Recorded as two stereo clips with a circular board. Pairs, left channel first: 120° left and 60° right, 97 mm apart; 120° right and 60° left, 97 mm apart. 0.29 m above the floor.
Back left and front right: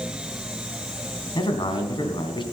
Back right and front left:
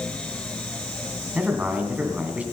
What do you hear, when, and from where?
1.4 s a man speaking: 130° left, 2.5 m